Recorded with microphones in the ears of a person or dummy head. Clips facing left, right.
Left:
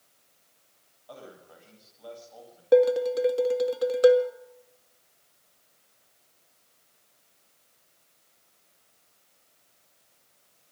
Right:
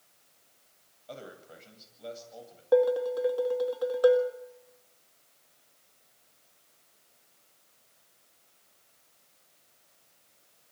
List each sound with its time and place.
1.1 s a man speaking: 30° right (ahead or behind), 9.5 m
2.7 s dishes clattering: 30° left (ahead or behind), 1.9 m